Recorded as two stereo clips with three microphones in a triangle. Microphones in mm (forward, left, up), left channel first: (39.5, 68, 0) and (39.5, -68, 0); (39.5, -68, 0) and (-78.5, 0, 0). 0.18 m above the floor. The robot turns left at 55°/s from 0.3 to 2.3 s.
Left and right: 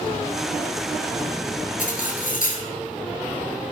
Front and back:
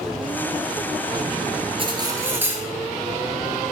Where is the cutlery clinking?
105° left, 1.8 m; by 2.6 s 75° left, 1.8 m.